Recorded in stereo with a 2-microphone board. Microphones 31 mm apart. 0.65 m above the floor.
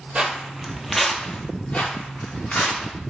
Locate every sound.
0.1 s footsteps: 35° right (ahead or behind), 0.8 m; by 2.9 s 60° left (ahead or behind), 1.4 m